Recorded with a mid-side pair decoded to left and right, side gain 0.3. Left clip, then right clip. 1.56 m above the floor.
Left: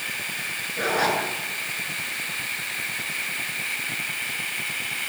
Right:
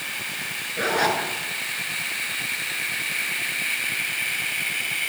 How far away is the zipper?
About 7.5 m.